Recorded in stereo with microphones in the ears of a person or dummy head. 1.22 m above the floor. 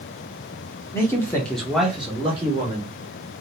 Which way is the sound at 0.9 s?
15° left (ahead or behind).